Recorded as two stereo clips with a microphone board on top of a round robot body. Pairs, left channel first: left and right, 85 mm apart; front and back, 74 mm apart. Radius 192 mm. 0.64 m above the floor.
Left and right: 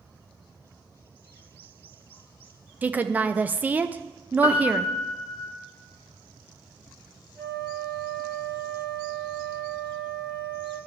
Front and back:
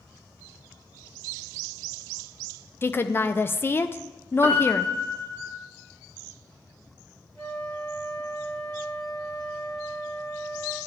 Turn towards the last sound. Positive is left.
turn(degrees=-60)